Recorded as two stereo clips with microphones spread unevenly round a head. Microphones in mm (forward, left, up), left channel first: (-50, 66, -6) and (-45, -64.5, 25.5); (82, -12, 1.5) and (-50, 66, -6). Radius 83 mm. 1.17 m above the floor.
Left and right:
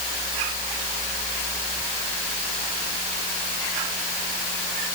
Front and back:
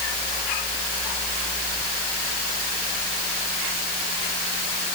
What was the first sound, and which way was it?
Only background noise.